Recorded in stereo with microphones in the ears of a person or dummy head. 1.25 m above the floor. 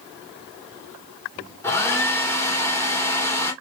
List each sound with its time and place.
1.6 s a hair dryer: 15° left (ahead or behind), 2 m